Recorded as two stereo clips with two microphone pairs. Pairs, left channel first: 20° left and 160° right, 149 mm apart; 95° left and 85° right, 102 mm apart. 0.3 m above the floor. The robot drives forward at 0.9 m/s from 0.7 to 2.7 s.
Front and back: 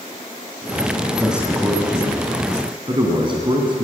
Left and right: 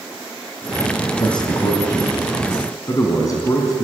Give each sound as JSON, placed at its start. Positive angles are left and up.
{"t": 1.2, "sound": "a man speaking", "azimuth_deg": 120, "distance_m": 2.0}